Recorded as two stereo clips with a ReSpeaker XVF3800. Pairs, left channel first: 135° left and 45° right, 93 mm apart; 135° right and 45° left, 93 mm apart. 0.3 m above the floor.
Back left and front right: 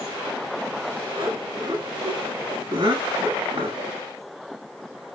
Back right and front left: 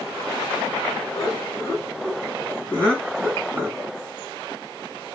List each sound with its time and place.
1.1 s laughter: 85° right, 3 m; by 3.9 s 45° right, 2.5 m